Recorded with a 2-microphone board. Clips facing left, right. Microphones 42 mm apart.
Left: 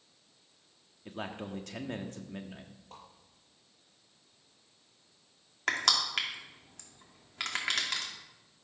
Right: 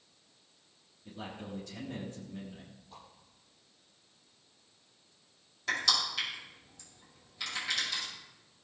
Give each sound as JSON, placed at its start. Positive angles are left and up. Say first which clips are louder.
{"t": 1.1, "sound": "a man speaking", "louder": "left 4 dB", "side_deg": 70, "distance_m": 1.4}
{"t": 2.9, "sound": "a whoosh", "louder": "left 2 dB", "side_deg": 75, "distance_m": 6.5}
{"t": 5.7, "sound": "crushing", "louder": "left 1 dB", "side_deg": 75, "distance_m": 2.5}